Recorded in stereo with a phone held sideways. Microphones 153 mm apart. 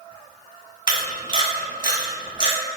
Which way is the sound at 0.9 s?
30° right (ahead or behind).